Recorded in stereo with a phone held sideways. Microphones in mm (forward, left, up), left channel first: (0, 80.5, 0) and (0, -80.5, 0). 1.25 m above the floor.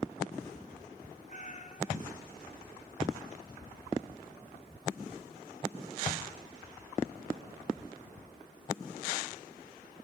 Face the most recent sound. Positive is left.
turn(degrees=50)  # may be behind; listen again after turning